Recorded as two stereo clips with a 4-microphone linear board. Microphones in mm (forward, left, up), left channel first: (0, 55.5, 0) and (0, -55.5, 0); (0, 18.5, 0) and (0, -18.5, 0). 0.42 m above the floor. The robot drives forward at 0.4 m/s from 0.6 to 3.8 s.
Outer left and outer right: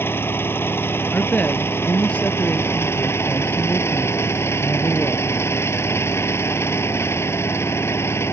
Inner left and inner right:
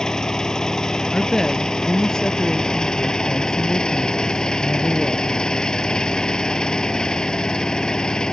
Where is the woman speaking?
10° left (ahead or behind).